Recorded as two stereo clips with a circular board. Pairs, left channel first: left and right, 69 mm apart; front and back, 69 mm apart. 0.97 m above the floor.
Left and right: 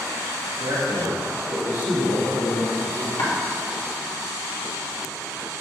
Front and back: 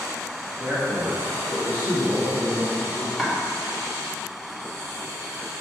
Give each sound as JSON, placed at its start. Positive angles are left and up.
{"t": 0.6, "sound": "a man speaking", "azimuth_deg": -110, "distance_m": 1.5}
{"t": 3.2, "sound": "chopping", "azimuth_deg": 95, "distance_m": 1.4}